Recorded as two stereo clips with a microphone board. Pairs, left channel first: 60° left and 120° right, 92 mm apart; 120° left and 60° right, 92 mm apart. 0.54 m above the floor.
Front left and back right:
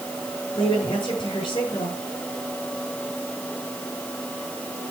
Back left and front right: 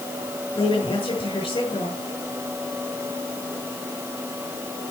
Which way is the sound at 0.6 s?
95° left.